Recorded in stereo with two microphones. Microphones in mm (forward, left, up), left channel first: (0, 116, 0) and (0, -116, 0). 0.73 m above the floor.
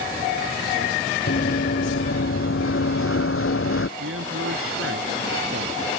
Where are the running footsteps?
50° left (ahead or behind); by 3.9 s 65° left (ahead or behind).